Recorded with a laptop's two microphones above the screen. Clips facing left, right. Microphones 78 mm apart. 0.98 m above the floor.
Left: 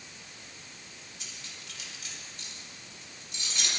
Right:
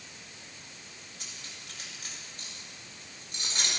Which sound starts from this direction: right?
Cutlery clinking, at 1.2 s.